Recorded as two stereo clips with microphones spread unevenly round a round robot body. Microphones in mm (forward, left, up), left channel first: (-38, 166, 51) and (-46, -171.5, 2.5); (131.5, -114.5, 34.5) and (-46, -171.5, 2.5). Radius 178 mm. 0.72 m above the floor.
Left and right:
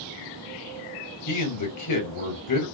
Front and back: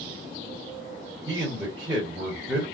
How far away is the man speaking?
About 2.5 m.